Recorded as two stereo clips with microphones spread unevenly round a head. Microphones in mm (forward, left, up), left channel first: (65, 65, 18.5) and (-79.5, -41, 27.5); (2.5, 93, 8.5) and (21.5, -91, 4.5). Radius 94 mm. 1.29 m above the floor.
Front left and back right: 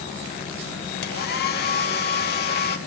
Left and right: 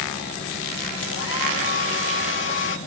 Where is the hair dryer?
70° left, 1.5 m.